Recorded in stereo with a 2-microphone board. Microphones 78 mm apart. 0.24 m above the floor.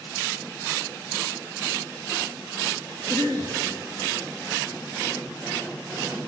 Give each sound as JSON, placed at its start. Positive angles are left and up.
{"t": 3.1, "sound": "a cough", "side_deg": -60, "distance_m": 2.5}